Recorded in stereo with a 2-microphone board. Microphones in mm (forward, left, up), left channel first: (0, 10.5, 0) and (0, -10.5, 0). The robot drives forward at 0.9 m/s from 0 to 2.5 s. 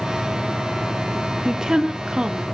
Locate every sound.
1.4 s a woman speaking: 30° right (ahead or behind), 1.1 m